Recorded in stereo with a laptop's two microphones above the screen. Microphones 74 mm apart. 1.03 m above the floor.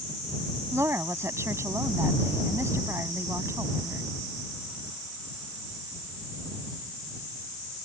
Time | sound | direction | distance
0.7 | a woman speaking | 40° right (ahead or behind) | ?